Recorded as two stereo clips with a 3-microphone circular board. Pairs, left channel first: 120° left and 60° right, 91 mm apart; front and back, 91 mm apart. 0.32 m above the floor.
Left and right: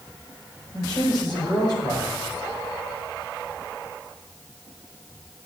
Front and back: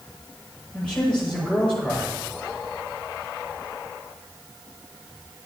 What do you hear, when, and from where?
0.7 s a man speaking: 75° left, 7.5 m